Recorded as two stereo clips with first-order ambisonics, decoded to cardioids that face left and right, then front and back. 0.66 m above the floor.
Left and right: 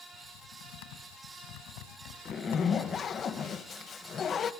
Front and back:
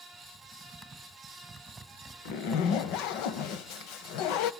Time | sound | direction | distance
0.1 | typing on a keyboard | 95° left | 2.5 m
2.2 | a zipper | 25° left | 1.0 m